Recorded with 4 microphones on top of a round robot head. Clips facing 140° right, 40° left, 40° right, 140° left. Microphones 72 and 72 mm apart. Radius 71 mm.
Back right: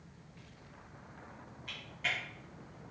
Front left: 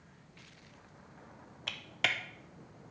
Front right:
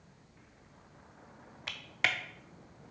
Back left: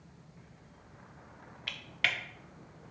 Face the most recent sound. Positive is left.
turn(degrees=25)